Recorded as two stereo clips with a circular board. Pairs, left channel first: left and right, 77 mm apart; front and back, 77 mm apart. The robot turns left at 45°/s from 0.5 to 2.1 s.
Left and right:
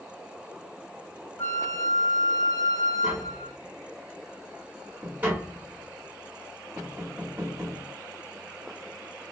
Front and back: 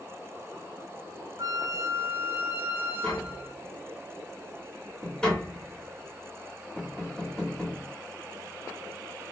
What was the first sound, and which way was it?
A flute, 150° left.